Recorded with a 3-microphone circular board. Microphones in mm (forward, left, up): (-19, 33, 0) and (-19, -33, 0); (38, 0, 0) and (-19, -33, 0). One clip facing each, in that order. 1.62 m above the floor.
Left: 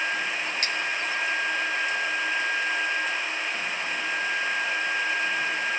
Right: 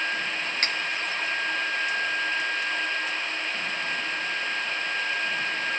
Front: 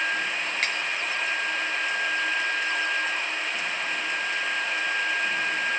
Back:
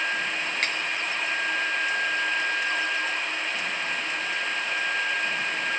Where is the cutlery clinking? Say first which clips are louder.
Right 1 dB, front 1 dB; 60° right, 1.5 m.